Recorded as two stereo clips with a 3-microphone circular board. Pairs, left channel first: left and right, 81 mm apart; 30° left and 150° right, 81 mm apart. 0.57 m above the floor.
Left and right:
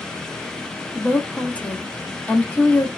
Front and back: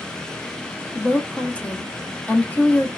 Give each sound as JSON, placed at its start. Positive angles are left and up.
{"t": 0.9, "sound": "a woman speaking", "azimuth_deg": 60, "distance_m": 0.6}